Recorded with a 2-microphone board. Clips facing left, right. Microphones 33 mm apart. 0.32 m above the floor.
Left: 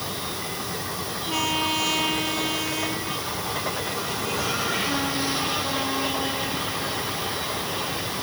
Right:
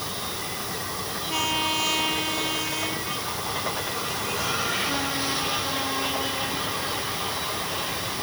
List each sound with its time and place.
Only background noise.